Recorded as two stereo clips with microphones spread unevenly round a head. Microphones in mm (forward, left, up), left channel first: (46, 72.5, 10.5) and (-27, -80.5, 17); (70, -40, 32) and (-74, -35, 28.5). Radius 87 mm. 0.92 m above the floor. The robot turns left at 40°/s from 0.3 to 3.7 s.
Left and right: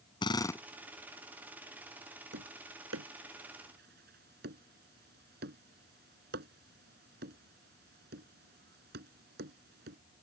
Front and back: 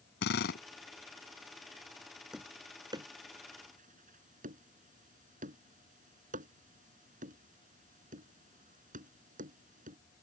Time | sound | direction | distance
0.2 | a drill | straight ahead | ?
2.3 | tapping | 95° right | ?